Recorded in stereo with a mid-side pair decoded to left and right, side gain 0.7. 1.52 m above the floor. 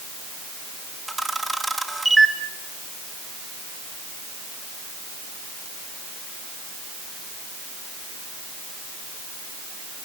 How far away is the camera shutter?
About 2 m.